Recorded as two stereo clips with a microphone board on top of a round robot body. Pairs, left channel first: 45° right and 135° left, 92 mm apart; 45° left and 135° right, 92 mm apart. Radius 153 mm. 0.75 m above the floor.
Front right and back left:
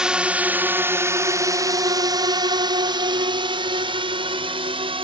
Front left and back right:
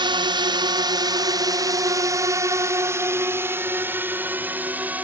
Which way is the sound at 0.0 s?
145° right.